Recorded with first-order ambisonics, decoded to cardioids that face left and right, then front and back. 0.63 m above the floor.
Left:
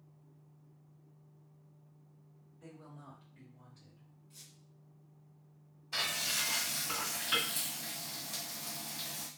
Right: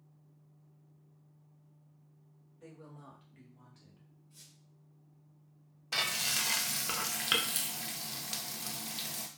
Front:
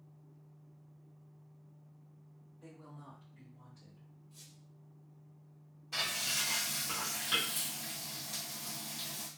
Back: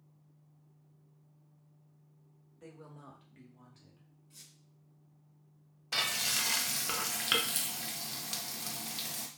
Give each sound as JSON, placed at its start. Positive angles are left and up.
{"t": 2.6, "sound": "a woman speaking", "azimuth_deg": -160, "distance_m": 1.6}
{"t": 4.3, "sound": "a squeak", "azimuth_deg": 145, "distance_m": 1.3}
{"t": 5.9, "sound": "frying", "azimuth_deg": -130, "distance_m": 0.5}